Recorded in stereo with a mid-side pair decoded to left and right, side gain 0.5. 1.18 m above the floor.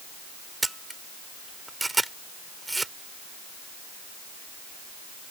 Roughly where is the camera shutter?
Ahead.